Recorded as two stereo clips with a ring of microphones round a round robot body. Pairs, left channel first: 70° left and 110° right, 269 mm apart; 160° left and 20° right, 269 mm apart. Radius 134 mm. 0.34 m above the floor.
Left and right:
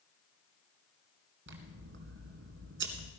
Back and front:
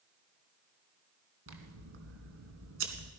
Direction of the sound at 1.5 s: 65° right.